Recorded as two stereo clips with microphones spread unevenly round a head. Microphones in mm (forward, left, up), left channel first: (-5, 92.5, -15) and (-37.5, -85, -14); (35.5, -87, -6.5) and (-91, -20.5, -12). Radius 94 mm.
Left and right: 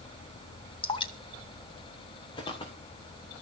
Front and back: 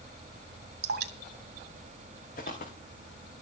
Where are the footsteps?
15° left, 3.5 m.